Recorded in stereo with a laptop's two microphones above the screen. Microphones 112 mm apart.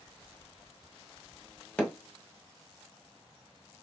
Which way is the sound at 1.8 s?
15° left (ahead or behind).